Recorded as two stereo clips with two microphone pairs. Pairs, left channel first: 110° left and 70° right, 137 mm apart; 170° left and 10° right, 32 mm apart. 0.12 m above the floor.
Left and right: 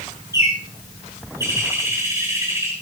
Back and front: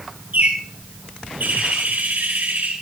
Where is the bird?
Straight ahead, 6 m.